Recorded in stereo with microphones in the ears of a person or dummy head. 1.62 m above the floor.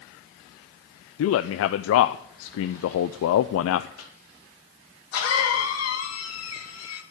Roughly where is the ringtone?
I don't hear a ringtone.